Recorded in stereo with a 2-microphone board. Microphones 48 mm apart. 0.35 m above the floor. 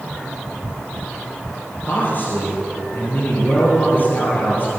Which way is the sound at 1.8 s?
45° left (ahead or behind).